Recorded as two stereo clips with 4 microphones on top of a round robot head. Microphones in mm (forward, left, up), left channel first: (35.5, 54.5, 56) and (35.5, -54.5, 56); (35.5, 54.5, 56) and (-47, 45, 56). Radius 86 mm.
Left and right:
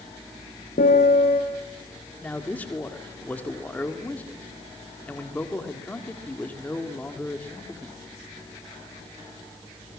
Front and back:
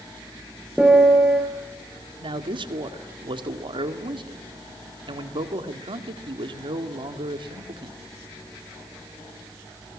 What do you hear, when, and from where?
0.8 s a piano: 105° left, 4 m
2.2 s a man speaking: 165° left, 1.9 m